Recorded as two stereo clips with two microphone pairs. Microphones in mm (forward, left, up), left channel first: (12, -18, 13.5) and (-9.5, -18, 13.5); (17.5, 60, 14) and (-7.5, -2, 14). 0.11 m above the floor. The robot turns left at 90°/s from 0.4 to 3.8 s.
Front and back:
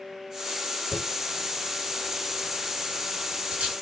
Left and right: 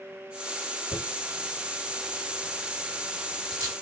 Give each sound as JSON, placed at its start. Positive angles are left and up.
{"t": 0.9, "sound": "a dropped coin", "azimuth_deg": 95, "distance_m": 1.8}